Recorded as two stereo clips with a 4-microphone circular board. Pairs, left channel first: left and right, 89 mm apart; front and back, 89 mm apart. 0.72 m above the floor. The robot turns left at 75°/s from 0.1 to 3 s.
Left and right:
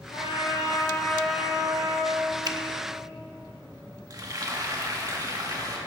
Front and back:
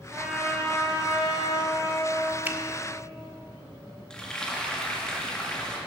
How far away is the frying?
About 1.5 m.